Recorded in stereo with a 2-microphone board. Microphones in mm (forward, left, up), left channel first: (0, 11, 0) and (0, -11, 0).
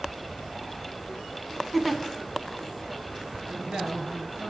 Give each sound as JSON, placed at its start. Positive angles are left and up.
{"t": 1.7, "sound": "a giggle", "side_deg": -5, "distance_m": 0.8}
{"t": 3.5, "sound": "a man speaking", "side_deg": -55, "distance_m": 3.0}